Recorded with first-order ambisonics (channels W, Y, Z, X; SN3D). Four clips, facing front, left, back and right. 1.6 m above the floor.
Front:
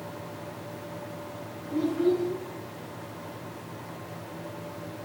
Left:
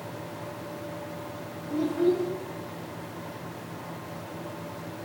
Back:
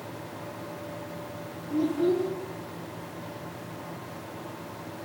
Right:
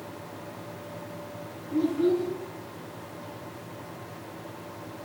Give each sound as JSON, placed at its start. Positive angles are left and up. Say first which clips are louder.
{"t": 1.7, "sound": "a child speaking", "louder": "even, even", "azimuth_deg": 115, "distance_m": 2.0}